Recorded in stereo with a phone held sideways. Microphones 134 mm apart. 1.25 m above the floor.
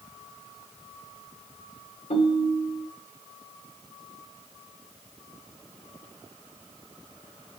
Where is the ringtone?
70° left (ahead or behind), 2.5 m.